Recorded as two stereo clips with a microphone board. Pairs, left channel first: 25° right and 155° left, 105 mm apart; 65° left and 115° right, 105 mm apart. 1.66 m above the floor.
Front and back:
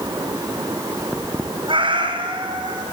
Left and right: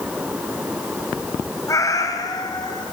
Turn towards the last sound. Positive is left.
turn(degrees=115)